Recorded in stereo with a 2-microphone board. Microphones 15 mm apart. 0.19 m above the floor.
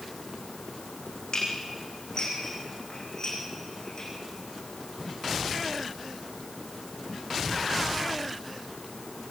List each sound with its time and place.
1.3 s dishes clattering: 45° left (ahead or behind), 8.5 m